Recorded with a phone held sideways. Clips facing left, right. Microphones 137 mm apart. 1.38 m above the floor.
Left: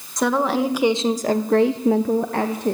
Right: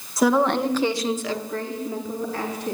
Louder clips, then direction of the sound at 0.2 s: Right 1 dB; 5° right (ahead or behind).